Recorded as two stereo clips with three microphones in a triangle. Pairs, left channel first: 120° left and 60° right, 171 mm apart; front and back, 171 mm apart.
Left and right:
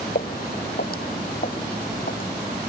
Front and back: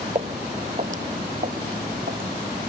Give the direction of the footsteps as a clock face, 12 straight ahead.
8 o'clock.